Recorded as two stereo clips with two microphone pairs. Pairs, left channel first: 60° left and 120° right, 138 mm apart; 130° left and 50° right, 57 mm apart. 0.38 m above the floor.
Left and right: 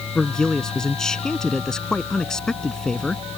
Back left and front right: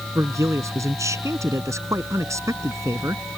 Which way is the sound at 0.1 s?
25° right.